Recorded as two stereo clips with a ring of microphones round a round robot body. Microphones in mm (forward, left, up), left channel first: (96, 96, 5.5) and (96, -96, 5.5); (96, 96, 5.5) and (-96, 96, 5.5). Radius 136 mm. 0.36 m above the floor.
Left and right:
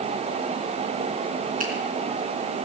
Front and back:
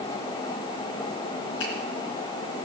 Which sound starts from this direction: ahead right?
A finger snap, at 1.6 s.